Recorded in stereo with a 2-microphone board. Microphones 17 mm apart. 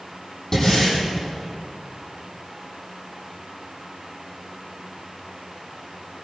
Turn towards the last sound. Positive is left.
turn(degrees=35)  # may be behind; listen again after turning